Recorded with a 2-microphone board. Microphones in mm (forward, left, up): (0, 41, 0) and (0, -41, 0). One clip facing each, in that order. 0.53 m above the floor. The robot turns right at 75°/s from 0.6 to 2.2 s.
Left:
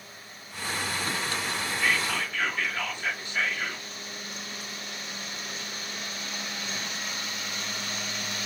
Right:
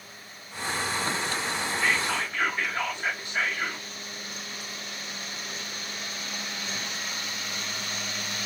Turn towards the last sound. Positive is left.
turn(degrees=-20)  # may be behind; listen again after turning